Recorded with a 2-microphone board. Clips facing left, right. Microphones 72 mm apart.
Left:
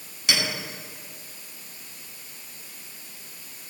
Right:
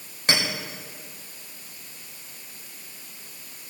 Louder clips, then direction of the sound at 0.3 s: Right 2 dB; 40° right (ahead or behind).